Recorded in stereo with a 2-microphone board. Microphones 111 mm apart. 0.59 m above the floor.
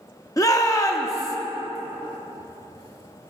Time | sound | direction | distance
0.4 | a shout | 30° left (ahead or behind) | 0.6 m